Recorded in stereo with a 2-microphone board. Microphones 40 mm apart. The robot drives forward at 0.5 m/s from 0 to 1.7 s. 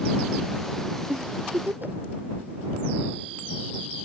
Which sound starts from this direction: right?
A giggle, at 1.1 s.